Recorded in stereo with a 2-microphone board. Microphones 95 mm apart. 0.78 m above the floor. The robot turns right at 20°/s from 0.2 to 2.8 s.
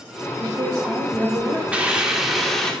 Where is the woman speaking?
40° right (ahead or behind), 1.8 m; by 1.6 s 15° right (ahead or behind), 1.8 m.